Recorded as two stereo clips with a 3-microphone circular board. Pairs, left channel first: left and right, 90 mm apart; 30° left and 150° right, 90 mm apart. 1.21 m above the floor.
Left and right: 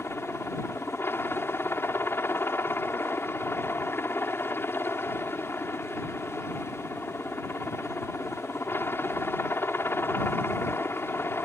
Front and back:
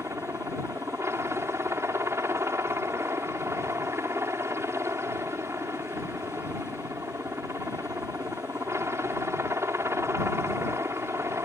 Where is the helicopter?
155° left.